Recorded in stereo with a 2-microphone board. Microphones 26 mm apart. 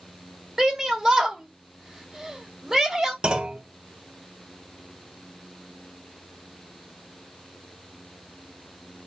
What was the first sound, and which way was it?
A shout, 10° right (ahead or behind).